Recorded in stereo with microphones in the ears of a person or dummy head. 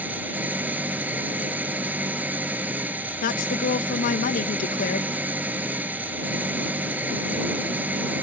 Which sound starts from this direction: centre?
An engine running, at 0.0 s.